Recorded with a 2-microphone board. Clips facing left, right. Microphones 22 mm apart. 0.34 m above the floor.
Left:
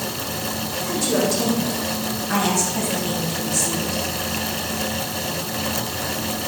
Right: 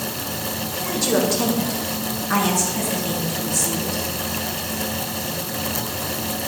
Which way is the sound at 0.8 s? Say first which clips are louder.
Right 1 dB; 20° right (ahead or behind).